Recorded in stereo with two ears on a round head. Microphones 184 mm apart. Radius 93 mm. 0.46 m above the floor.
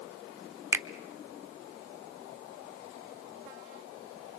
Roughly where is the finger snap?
Centre.